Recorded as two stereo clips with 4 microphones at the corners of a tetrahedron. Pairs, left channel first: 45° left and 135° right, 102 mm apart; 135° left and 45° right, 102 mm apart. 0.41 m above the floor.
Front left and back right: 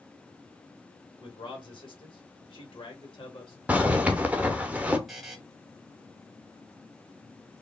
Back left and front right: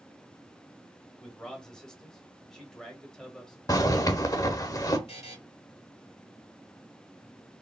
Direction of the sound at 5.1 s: 135° left.